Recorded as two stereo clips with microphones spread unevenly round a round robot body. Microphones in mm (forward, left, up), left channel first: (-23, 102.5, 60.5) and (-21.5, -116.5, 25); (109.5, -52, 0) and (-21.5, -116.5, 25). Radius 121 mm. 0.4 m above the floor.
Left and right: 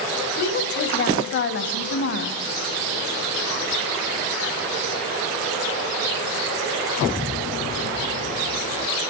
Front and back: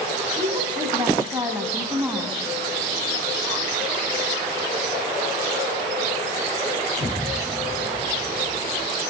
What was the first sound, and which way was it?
A woman speaking, 135° left.